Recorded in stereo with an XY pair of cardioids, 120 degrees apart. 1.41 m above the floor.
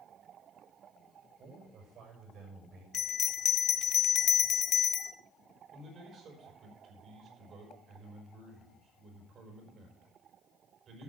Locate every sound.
1.4 s a man speaking: 55° right, 6.5 m
2.9 s a bell: 55° left, 0.8 m
5.7 s a man speaking: 50° right, 5 m